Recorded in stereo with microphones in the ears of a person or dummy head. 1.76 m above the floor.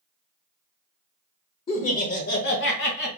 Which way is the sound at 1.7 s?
30° left (ahead or behind).